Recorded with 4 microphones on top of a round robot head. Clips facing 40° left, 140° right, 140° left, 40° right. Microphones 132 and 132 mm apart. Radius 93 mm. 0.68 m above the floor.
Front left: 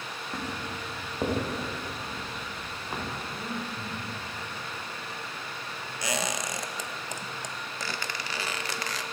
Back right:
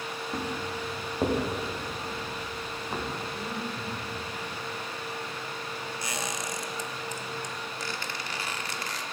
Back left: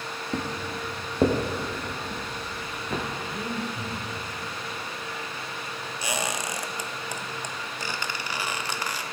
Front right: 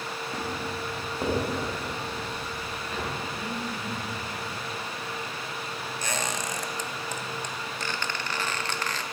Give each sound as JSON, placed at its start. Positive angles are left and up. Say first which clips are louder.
{"t": 0.3, "sound": "footsteps", "louder": "back right 2 dB, back left 3 dB", "azimuth_deg": 140, "distance_m": 3.0}
{"t": 3.3, "sound": "breathing", "louder": "back right 1 dB, back left 2 dB", "azimuth_deg": 130, "distance_m": 2.5}
{"t": 6.0, "sound": "a squeak", "louder": "front left 6 dB, back left 2 dB", "azimuth_deg": 60, "distance_m": 0.6}